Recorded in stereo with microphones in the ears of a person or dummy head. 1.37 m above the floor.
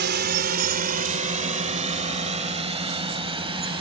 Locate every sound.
0.0 s a drone: 50° right (ahead or behind); by 3.8 s 25° right (ahead or behind)